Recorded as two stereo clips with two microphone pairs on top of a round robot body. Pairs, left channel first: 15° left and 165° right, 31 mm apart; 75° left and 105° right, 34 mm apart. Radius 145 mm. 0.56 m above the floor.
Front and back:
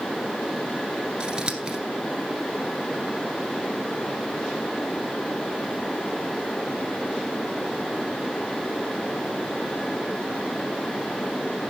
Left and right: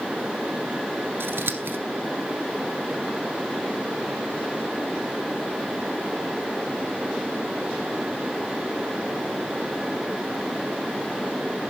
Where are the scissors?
100° right, 1.7 m.